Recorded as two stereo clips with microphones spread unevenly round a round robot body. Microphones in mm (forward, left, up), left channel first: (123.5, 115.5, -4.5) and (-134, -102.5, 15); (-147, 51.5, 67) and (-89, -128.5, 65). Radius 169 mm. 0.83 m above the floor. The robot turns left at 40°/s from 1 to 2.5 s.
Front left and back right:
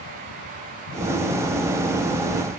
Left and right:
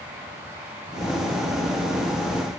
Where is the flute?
No flute in this recording.